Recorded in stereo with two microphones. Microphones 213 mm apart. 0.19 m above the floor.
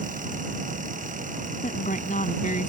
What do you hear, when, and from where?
1.6 s a woman speaking: 40° left (ahead or behind)